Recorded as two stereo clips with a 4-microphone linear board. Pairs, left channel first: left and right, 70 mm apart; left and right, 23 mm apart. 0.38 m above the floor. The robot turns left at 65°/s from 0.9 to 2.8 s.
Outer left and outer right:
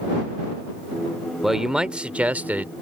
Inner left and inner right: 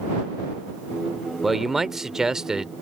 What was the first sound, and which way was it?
A man speaking, centre (ahead or behind).